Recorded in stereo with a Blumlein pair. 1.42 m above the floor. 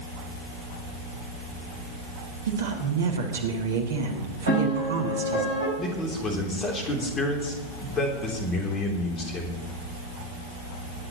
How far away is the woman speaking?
About 2.5 m.